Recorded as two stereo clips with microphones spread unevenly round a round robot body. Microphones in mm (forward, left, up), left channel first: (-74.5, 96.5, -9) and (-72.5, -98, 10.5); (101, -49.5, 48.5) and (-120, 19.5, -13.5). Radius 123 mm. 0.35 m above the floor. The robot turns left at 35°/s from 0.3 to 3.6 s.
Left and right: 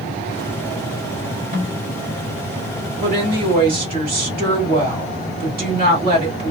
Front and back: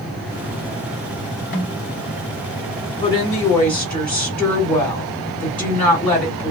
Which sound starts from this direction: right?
A woman speaking, at 3.0 s.